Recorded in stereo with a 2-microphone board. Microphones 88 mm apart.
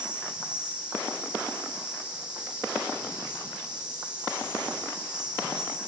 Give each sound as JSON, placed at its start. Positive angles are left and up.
{"t": 0.0, "sound": "an insect", "side_deg": -10, "distance_m": 8.0}